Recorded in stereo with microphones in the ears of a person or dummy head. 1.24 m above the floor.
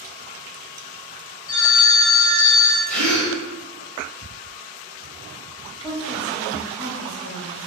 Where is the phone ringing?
65° left (ahead or behind), 1.6 m.